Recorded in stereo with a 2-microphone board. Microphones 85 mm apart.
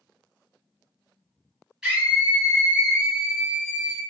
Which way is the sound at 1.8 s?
10° right (ahead or behind).